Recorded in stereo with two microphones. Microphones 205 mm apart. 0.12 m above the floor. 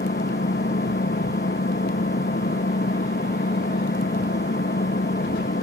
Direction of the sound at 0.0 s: 55° left (ahead or behind).